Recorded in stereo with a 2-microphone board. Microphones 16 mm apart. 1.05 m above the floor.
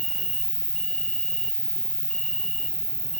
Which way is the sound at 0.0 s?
30° left (ahead or behind).